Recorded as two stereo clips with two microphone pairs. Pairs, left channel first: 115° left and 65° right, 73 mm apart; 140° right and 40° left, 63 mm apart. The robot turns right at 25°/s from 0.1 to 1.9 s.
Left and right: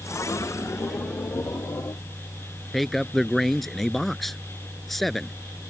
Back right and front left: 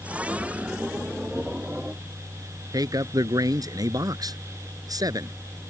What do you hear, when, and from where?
2.7 s a man speaking: 25° left